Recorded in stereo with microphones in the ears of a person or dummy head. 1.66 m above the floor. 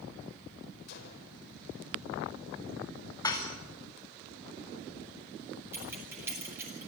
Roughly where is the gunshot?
Left.